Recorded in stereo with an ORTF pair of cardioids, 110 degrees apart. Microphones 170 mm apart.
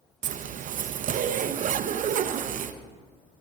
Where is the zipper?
45° right, 0.6 m.